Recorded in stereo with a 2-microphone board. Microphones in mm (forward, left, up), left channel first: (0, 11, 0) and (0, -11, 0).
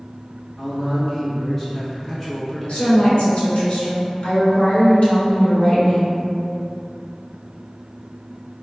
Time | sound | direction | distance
0.6 | a man speaking | 10° left (ahead or behind) | 1.0 m
2.7 | a woman speaking | 50° left (ahead or behind) | 1.2 m